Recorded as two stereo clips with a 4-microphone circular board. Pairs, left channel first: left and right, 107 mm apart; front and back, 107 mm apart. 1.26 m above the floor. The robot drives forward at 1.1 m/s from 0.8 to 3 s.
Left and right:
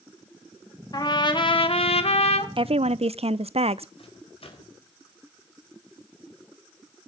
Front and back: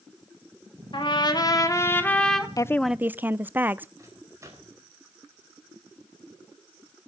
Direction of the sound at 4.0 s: 120° left.